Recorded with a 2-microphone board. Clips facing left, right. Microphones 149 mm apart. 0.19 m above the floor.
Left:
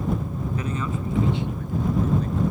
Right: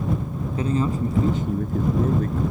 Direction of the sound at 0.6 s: 30° right (ahead or behind).